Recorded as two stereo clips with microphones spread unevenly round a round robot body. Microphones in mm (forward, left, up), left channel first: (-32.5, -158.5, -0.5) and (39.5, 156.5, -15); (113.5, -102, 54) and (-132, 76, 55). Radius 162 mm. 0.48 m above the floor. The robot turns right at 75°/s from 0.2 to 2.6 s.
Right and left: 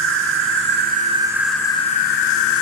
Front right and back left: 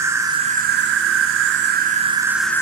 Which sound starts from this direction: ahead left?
An insect, at 0.0 s.